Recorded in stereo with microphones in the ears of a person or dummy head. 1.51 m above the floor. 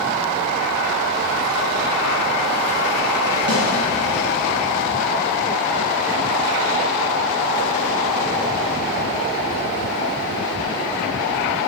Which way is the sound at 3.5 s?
60° right (ahead or behind).